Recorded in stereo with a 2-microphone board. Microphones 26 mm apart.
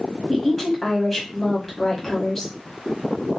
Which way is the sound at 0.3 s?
20° left (ahead or behind).